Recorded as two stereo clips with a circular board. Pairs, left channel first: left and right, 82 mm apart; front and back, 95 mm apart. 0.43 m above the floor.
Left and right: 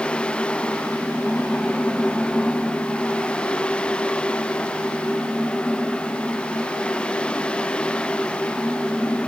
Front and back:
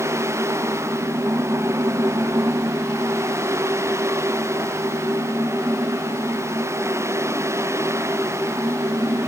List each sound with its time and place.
Only background noise.